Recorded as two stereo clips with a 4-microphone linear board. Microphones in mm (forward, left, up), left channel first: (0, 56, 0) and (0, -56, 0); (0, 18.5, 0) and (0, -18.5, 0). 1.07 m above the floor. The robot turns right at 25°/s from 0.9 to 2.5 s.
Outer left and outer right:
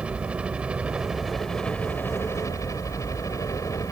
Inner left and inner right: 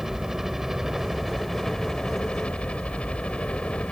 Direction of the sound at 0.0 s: 10° right.